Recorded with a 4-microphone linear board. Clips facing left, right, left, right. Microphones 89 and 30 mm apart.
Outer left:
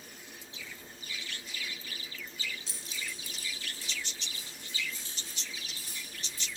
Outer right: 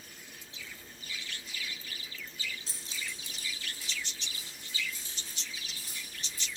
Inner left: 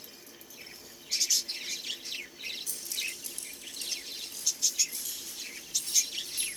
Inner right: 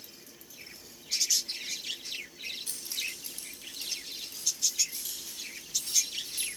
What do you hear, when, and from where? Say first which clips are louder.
2.7 s keys jangling: even, even; 45° right (ahead or behind), 1.1 m; by 6.5 s centre (ahead or behind), 6.5 m